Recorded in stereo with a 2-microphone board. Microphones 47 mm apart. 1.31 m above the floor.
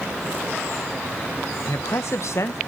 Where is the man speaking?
65° left (ahead or behind), 1.1 m.